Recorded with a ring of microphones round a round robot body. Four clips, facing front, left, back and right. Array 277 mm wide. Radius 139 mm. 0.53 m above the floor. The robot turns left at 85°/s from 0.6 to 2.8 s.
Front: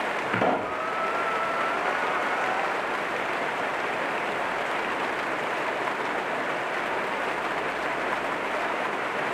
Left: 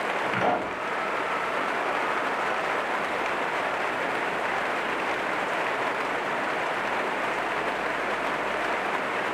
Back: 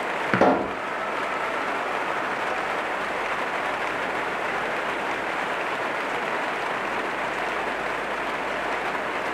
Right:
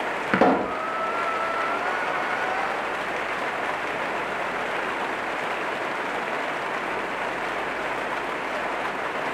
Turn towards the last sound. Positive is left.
turn(degrees=35)